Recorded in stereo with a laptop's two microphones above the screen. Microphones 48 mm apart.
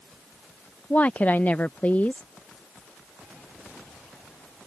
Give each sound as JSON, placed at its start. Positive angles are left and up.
{"t": 0.9, "sound": "a woman speaking", "side_deg": 35}